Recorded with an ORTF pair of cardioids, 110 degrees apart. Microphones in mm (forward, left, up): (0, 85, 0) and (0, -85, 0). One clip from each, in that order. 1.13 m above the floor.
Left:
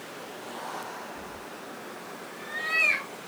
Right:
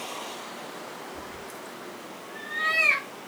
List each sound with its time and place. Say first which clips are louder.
1.1 s a cat meowing: right 1 dB; 70° right, 1.7 m; by 3.1 s 45° right, 0.8 m